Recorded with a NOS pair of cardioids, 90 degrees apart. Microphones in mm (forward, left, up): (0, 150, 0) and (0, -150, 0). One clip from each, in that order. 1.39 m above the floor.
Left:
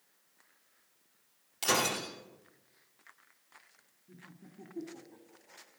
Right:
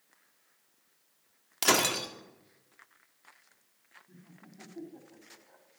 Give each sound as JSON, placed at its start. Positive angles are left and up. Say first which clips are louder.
{"t": 1.6, "sound": "breaking glass", "louder": "right 4 dB", "azimuth_deg": -60, "distance_m": 2.0}
{"t": 4.1, "sound": "laughter", "louder": "left 1 dB", "azimuth_deg": 10, "distance_m": 3.0}